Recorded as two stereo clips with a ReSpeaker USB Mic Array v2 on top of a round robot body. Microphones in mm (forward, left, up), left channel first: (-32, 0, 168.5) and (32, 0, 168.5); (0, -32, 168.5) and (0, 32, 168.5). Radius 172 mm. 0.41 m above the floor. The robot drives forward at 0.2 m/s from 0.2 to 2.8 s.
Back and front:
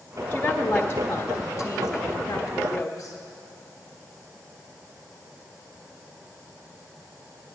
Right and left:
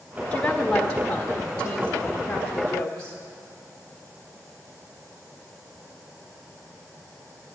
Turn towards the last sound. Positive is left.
turn(degrees=-165)